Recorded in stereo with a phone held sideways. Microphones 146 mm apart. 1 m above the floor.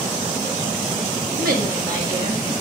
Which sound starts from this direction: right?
A woman speaking, at 1.4 s.